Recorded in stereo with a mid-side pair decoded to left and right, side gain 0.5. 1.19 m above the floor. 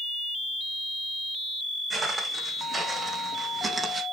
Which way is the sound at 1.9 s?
25° right.